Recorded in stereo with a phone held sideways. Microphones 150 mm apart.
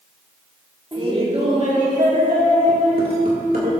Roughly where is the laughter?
Right.